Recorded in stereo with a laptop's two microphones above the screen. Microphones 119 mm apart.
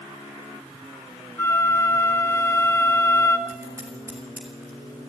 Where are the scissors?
20° right (ahead or behind), 3.5 m.